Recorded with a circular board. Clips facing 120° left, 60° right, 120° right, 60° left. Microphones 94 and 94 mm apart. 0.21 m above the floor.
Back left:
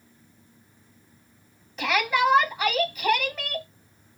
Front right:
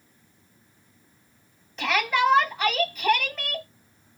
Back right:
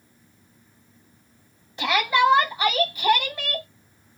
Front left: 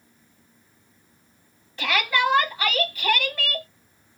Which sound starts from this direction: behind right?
A shout, at 1.8 s.